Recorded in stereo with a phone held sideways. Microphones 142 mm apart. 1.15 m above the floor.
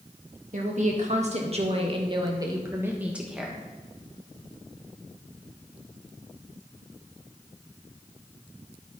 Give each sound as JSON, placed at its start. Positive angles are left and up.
{"t": 0.5, "sound": "a woman speaking", "side_deg": -65, "distance_m": 2.0}